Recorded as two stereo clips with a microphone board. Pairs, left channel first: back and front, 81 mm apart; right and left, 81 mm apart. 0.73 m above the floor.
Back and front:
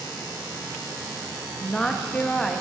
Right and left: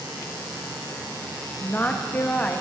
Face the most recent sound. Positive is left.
turn(degrees=-110)